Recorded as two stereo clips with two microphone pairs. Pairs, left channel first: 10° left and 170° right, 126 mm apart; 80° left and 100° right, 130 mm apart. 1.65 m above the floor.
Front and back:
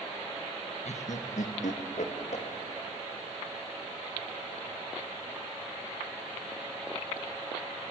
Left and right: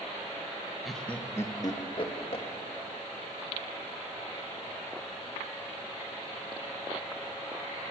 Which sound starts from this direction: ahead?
Laughter, at 0.8 s.